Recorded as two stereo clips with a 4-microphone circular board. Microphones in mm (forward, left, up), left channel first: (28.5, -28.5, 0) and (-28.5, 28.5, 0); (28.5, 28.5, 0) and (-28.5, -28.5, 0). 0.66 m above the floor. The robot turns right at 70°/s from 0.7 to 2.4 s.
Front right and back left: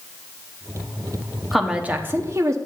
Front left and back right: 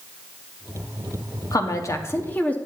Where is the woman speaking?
45° left, 0.8 m; by 2.6 s 110° left, 0.8 m.